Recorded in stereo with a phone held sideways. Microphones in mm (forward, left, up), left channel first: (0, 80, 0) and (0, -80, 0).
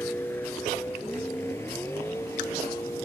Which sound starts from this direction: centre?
A vehicle, at 0.0 s.